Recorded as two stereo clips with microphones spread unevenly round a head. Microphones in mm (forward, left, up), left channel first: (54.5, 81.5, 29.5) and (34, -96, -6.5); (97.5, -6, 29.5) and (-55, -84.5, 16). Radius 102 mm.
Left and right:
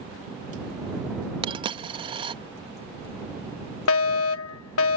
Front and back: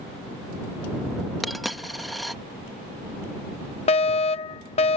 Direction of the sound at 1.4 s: 50° right.